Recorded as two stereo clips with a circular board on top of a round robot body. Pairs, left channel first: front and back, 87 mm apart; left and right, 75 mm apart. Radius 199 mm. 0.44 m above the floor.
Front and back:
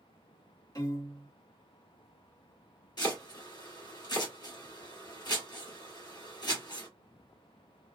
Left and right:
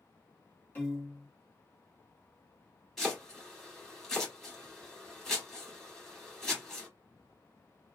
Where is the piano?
30° left, 1.9 m.